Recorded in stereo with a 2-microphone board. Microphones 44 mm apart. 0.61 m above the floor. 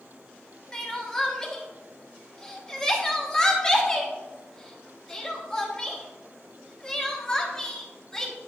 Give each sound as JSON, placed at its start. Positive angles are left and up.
{"t": 0.7, "sound": "crying", "side_deg": 15, "distance_m": 0.9}